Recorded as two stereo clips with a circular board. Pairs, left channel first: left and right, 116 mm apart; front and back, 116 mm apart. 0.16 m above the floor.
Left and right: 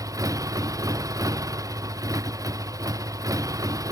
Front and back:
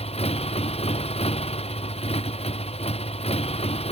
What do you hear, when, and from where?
0.0 s a motorcycle: 30° right